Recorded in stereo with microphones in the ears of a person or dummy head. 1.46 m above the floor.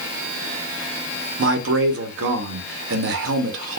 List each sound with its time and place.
1.4 s a man speaking: 65° right (ahead or behind), 0.8 m